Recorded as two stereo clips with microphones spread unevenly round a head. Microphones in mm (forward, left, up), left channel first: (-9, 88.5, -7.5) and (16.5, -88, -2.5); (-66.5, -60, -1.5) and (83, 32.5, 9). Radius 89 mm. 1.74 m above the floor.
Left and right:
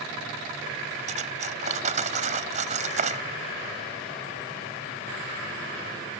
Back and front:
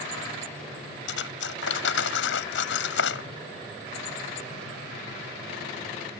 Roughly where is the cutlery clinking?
Behind right.